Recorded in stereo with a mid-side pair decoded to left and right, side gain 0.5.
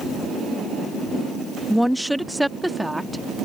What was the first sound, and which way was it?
A woman speaking, 5° left.